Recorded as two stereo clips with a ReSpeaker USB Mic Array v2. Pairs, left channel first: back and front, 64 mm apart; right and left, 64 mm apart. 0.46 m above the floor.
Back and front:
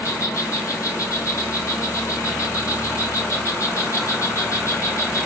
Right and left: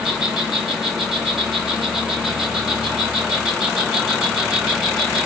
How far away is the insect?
About 1.0 m.